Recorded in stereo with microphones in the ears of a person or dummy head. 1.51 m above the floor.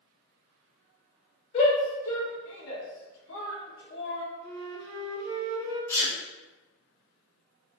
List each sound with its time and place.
1.5 s a shout: 30° left (ahead or behind), 1.2 m; by 4.2 s 55° left (ahead or behind), 1.1 m
4.4 s a flute: 50° right (ahead or behind), 1.6 m
5.9 s a sneeze: 15° left (ahead or behind), 0.9 m